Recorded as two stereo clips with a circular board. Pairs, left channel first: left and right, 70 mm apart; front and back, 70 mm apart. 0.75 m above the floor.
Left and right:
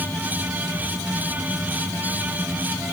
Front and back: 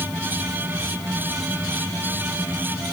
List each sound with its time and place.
Only background noise.